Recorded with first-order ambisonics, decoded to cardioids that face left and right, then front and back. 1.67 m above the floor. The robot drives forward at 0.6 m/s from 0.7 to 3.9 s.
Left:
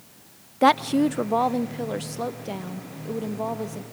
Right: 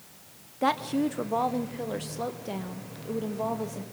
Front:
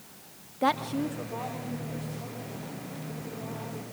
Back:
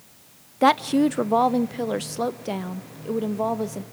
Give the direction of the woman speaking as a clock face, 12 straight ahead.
7 o'clock.